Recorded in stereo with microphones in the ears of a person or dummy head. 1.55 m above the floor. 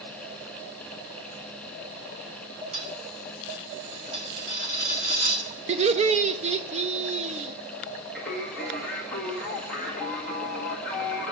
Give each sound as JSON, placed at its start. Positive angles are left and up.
{"t": 2.7, "sound": "a dropped coin", "side_deg": -45, "distance_m": 1.9}
{"t": 5.7, "sound": "laughter", "side_deg": -35, "distance_m": 0.5}
{"t": 8.2, "sound": "singing", "side_deg": 5, "distance_m": 1.6}